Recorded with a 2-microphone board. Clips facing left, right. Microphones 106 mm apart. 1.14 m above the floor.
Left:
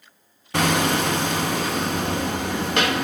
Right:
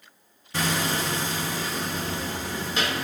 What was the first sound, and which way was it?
Hammering, 70° left (ahead or behind).